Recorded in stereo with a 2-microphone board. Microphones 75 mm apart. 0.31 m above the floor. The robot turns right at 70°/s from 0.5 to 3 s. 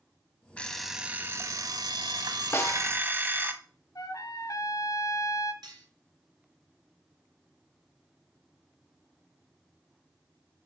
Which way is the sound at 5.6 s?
75° right (ahead or behind).